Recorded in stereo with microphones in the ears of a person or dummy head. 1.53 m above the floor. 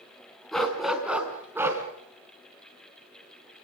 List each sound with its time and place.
0.5 s a dog barking: 10° left (ahead or behind), 3.5 m; by 1.8 s 10° right (ahead or behind), 4 m